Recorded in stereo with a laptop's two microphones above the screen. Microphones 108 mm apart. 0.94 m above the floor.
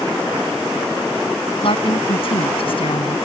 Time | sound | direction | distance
1.6 | a woman speaking | 55° left (ahead or behind) | ?